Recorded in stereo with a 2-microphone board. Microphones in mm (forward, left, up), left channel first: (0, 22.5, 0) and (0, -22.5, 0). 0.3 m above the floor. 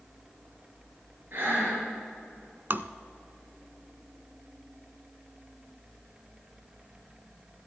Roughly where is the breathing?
Right.